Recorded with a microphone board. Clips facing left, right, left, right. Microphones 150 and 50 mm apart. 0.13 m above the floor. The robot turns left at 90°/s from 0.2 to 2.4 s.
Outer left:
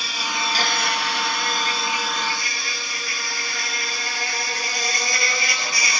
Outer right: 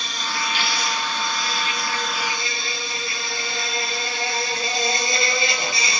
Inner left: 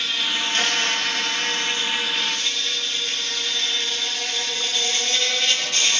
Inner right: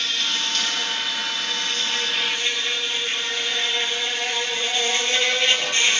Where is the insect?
175° left, 4 m; by 6.0 s 25° right, 4 m.